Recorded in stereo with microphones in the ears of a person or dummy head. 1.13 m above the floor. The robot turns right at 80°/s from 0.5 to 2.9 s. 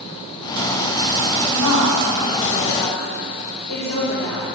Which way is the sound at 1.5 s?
110° left.